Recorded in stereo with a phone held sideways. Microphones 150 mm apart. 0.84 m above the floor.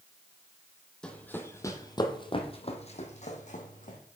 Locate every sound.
1.0 s running footsteps: 5° left (ahead or behind), 1.2 m; by 4.0 s 60° left (ahead or behind), 1.9 m